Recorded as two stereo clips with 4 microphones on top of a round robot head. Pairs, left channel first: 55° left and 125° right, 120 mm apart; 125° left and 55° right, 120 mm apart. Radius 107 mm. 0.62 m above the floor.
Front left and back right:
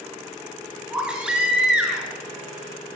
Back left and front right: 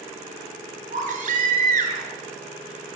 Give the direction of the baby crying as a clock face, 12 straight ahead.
1 o'clock.